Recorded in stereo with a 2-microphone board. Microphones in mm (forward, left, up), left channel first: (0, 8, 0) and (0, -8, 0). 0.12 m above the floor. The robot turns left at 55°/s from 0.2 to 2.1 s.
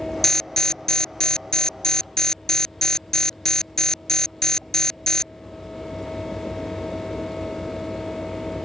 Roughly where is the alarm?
Behind left.